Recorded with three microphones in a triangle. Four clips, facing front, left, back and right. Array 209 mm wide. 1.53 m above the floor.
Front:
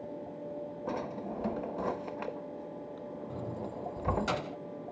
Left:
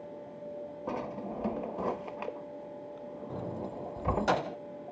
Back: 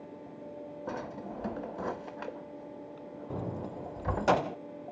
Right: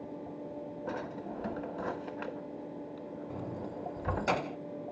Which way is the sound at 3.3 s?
175° left.